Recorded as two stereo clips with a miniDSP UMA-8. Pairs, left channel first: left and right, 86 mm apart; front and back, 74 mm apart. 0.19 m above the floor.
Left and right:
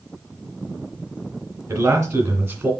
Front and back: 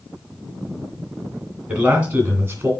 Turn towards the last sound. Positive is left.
turn(degrees=-135)